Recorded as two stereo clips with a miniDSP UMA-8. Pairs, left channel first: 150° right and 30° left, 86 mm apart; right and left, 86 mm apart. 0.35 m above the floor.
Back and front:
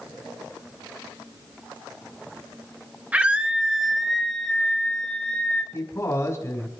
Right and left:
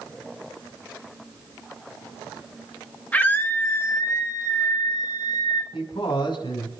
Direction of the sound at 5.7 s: 95° right.